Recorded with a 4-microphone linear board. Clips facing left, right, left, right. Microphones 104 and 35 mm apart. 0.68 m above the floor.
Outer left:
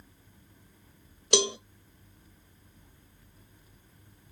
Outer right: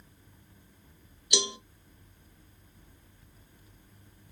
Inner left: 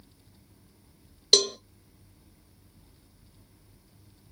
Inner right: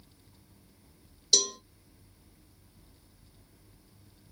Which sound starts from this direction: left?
A cowbell, at 1.3 s.